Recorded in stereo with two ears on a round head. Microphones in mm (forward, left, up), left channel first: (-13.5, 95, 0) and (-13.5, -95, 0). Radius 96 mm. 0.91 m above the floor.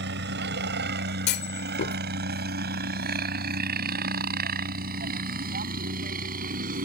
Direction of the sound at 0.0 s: 55° right (ahead or behind).